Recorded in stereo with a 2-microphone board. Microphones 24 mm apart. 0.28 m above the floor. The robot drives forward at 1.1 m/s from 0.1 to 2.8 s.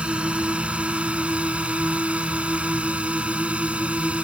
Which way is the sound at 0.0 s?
55° right (ahead or behind).